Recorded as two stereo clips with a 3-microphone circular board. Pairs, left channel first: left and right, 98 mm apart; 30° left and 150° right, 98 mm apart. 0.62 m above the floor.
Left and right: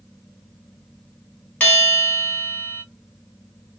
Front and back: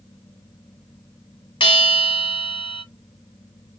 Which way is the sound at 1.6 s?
20° left.